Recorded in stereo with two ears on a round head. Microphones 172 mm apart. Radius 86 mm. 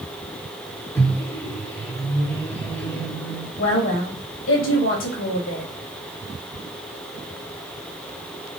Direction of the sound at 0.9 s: 15° left (ahead or behind).